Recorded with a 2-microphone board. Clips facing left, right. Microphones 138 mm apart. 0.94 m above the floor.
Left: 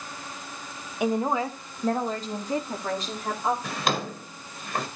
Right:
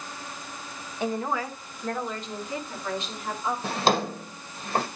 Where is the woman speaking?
15° left (ahead or behind), 1.1 m; by 3.5 s 45° left (ahead or behind), 3 m.